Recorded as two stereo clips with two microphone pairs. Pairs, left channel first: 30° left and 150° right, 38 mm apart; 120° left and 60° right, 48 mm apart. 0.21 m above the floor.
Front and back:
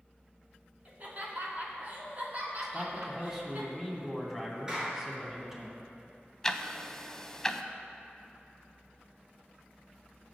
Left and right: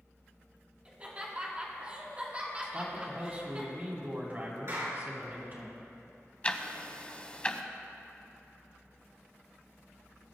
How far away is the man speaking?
About 2 m.